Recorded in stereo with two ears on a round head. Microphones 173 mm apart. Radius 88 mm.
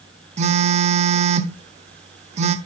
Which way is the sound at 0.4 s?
35° right (ahead or behind).